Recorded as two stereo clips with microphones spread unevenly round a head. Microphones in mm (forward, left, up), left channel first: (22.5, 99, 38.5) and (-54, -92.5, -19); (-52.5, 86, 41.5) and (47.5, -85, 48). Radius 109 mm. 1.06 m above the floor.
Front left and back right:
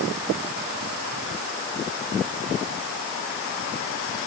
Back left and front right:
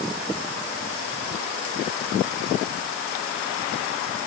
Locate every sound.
Only background noise.